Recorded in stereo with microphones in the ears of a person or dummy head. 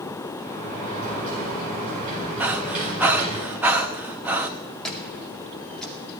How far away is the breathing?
About 0.8 m.